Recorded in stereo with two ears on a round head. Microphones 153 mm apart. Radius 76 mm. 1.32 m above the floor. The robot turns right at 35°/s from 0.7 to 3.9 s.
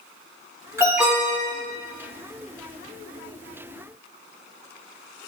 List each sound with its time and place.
0.8 s an alarm: 15° right (ahead or behind), 2.5 m; by 1.5 s 10° left (ahead or behind), 2.5 m